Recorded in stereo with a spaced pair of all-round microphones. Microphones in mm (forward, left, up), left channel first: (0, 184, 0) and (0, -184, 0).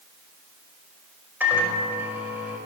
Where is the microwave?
5° right (ahead or behind), 5.5 m.